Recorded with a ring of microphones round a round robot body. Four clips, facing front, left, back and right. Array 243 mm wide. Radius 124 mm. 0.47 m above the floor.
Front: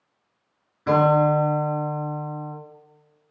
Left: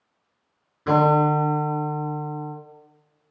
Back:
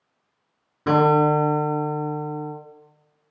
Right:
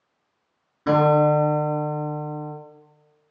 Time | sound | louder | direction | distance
0.9 | a guitar | right 1 dB, back 1 dB | 170° right | 3.5 m